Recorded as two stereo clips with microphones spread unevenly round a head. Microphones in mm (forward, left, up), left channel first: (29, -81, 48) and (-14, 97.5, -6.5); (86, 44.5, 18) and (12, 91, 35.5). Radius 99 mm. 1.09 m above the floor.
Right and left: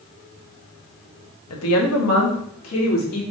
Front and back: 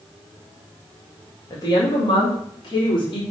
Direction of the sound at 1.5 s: 90° right.